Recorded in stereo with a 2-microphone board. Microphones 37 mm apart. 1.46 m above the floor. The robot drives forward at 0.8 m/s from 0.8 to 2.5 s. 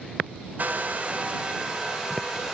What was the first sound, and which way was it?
A hair dryer, 45° right (ahead or behind).